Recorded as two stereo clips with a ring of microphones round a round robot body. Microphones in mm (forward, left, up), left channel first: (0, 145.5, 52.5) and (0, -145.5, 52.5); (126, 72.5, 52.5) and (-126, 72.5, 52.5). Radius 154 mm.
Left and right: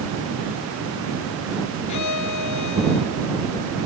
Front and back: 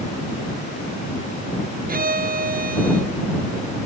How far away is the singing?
No singing in this recording.